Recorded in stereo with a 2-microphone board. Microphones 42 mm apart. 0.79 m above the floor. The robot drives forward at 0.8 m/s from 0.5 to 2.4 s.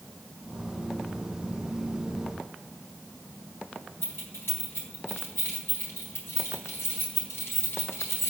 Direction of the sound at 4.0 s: 85° left.